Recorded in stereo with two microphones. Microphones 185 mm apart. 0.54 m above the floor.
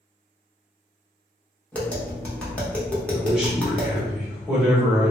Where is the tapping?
10° left (ahead or behind), 0.9 m.